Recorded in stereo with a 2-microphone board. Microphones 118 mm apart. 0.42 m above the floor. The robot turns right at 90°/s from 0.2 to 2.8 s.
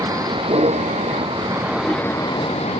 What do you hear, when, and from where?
0.0 s a vehicle: 150° right; by 2.8 s 85° left